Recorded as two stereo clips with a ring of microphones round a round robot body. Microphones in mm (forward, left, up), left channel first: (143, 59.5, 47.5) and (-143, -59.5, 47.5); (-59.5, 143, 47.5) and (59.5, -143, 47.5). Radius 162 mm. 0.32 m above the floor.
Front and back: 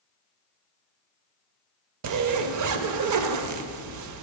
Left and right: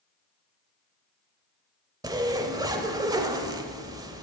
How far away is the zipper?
About 0.5 m.